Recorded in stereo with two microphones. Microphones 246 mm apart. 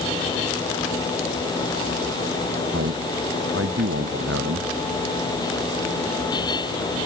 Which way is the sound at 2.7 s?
60° right (ahead or behind).